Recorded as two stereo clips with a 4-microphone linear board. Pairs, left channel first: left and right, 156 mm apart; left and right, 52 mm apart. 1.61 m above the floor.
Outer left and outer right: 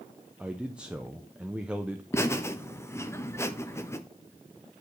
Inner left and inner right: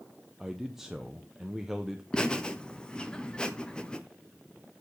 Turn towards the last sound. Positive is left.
turn(degrees=15)  # may be behind; listen again after turning